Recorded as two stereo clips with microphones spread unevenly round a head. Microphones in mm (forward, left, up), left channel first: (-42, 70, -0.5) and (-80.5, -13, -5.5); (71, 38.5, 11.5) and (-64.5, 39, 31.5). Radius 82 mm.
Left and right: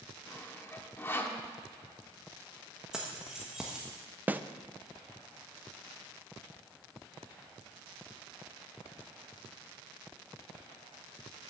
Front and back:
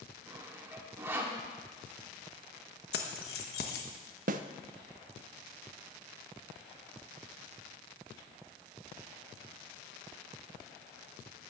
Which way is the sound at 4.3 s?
175° left.